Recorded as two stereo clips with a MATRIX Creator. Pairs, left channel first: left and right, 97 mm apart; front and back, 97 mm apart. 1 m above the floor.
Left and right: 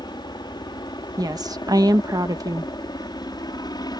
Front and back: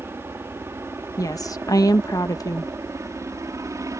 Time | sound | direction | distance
0.0 | a helicopter | 120° left | ?
1.2 | a woman speaking | 45° right | ?